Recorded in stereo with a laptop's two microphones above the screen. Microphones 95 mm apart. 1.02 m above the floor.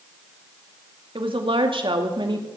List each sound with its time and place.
1.1 s a woman speaking: 70° right (ahead or behind), 2 m; by 2.5 s 55° right (ahead or behind), 2.5 m